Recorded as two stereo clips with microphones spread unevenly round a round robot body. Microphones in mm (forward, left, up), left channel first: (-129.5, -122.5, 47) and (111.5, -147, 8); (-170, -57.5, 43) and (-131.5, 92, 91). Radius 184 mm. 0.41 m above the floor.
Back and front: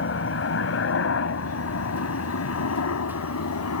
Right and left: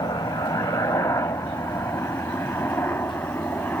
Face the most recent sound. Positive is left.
turn(degrees=180)